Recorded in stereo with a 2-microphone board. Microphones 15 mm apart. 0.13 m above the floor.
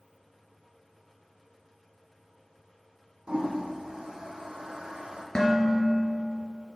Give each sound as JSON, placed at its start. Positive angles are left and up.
{"t": 3.3, "sound": "a toilet flushing", "side_deg": -80, "distance_m": 1.1}
{"t": 5.3, "sound": "dishes clattering", "side_deg": 55, "distance_m": 1.3}